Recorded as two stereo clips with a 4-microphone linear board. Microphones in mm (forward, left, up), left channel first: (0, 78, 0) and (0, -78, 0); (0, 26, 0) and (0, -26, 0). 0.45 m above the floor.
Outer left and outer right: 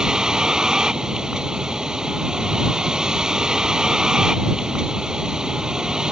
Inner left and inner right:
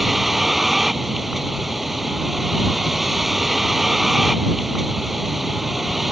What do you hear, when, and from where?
0.0 s a vehicle: 5° right (ahead or behind)